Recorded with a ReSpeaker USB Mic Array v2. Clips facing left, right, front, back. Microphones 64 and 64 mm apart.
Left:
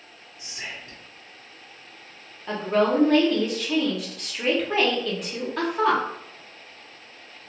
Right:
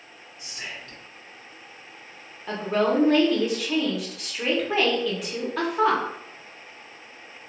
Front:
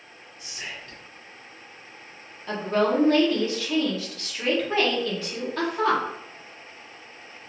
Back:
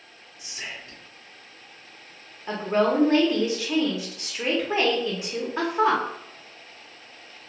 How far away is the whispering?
About 0.8 m.